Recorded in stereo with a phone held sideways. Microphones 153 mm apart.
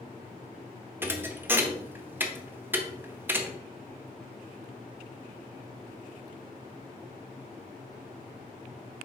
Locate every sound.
1.0 s a thud: 15° right (ahead or behind), 0.9 m